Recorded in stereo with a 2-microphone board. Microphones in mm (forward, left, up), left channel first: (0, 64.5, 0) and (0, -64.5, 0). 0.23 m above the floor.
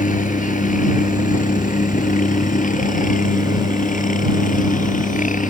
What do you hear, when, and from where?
0.0 s a helicopter: 70° left (ahead or behind)